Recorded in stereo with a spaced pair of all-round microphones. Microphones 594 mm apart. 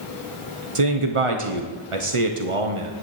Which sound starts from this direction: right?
A man speaking, at 0.8 s.